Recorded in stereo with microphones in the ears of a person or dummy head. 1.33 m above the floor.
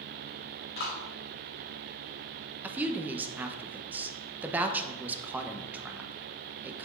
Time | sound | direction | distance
0.8 | a clap | 65° left (ahead or behind) | 4.5 m
2.6 | a woman speaking | 10° right (ahead or behind) | 0.8 m